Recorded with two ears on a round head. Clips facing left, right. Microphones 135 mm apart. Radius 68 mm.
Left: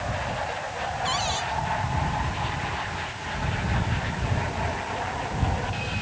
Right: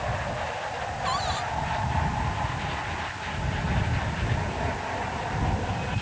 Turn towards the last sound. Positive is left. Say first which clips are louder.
# right 2 dB
turn(degrees=25)  # may be behind; listen again after turning